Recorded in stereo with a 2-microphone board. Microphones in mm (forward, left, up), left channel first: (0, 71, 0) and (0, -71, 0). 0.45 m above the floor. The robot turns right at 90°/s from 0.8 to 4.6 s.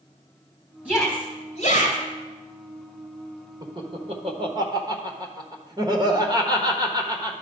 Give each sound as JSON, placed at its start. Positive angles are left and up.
{"t": 0.8, "sound": "a shout", "side_deg": -10, "distance_m": 3.5}
{"t": 3.6, "sound": "laughter", "side_deg": -30, "distance_m": 1.2}